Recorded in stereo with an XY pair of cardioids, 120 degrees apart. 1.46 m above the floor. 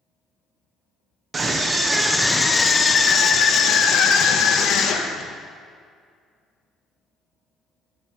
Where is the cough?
No cough in this recording.